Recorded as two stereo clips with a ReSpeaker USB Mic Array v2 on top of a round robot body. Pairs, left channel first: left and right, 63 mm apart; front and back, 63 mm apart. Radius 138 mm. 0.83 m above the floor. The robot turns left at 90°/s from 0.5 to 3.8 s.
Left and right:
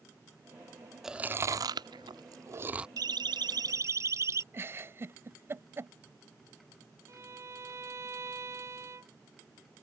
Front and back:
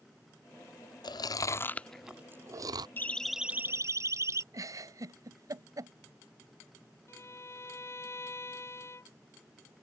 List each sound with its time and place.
1.0 s chewing: 5° right; by 2.9 s 170° right
3.0 s a siren: 60° right; by 4.4 s 135° right
4.5 s a giggle: 145° right
7.1 s a violin: 45° right